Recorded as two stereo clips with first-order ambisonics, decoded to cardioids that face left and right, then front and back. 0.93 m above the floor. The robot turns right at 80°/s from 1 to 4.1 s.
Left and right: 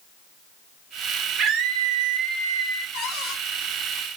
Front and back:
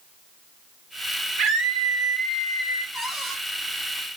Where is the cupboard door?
75° left, 1.1 m; by 3.4 s 115° left, 1.1 m.